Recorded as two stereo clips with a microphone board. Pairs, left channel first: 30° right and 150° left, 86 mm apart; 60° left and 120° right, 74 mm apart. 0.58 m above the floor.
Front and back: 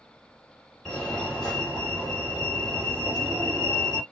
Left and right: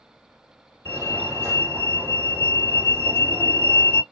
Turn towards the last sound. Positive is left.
turn(degrees=-125)